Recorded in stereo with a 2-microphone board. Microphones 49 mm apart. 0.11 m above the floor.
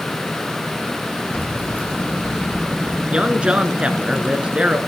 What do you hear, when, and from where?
1.3 s keys jangling: 45° left (ahead or behind), 3 m; by 3.0 s 35° left (ahead or behind), 4.5 m
3.1 s a man speaking: 20° right (ahead or behind), 1.1 m